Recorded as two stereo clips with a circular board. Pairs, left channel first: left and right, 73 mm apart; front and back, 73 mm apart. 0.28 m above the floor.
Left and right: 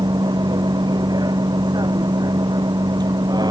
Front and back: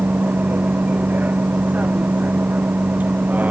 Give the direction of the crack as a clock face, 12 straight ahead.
No crack in this recording.